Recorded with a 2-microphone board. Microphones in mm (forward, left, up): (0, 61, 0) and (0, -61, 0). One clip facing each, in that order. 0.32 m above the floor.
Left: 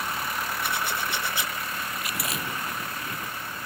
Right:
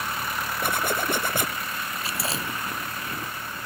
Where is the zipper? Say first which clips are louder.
Right 7 dB; 50° right (ahead or behind).